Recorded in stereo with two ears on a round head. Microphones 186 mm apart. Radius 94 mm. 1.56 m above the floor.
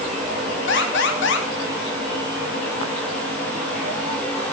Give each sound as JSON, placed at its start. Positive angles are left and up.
{"t": 0.7, "sound": "an alarm", "side_deg": 60, "distance_m": 3.5}